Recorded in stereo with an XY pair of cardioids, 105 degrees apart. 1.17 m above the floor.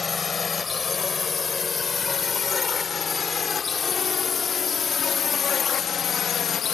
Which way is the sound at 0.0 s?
30° left.